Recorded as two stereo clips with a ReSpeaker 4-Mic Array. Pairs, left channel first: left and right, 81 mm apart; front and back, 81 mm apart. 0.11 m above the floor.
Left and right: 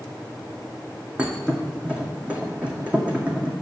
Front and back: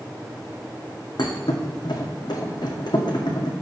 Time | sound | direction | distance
1.2 | a thud | 15° right | 1.7 m